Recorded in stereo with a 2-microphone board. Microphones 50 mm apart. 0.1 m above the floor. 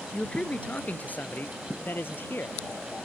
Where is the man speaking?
20° left (ahead or behind); by 2.6 s 50° left (ahead or behind).